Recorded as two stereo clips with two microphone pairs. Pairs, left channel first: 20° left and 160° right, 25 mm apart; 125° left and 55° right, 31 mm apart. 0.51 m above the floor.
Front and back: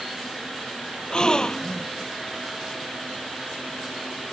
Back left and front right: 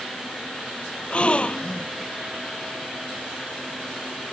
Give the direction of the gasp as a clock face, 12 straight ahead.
9 o'clock.